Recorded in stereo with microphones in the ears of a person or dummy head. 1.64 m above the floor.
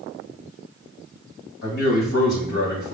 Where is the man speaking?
60° left (ahead or behind), 2 m.